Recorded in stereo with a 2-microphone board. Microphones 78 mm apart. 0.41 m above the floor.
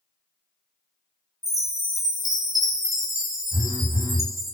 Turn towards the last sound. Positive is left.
turn(degrees=-40)  # may be behind; listen again after turning